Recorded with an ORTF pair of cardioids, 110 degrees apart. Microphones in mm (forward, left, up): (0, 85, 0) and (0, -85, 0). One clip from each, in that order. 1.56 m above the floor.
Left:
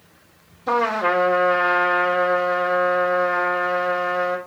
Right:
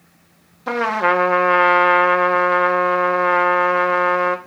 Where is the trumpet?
50° right, 1.8 m.